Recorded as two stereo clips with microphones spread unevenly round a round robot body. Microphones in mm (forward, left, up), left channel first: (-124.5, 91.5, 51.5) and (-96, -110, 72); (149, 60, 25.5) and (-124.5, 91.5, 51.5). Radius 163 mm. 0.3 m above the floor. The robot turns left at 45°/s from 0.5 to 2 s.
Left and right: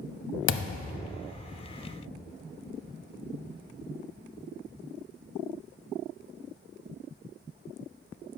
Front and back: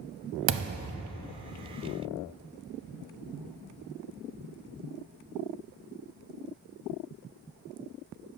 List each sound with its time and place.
0.5 s a thud: 125° left, 0.6 m; by 1.2 s 95° left, 0.6 m